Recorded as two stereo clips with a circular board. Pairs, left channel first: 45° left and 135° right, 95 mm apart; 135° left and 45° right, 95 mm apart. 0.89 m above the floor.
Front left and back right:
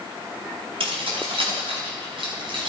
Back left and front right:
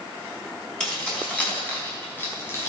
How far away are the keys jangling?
About 5 m.